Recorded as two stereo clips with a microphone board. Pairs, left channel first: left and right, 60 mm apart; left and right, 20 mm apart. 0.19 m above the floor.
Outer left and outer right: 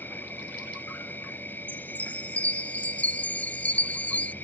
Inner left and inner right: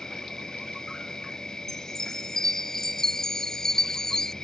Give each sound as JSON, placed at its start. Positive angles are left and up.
{"t": 0.0, "sound": "an insect", "side_deg": 35}
{"t": 1.7, "sound": "a chime", "side_deg": 25}